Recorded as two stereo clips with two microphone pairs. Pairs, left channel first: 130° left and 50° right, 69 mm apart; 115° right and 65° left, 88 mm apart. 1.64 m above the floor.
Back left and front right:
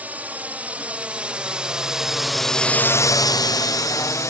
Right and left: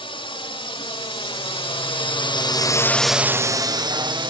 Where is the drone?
115° right; by 4.3 s 90° left.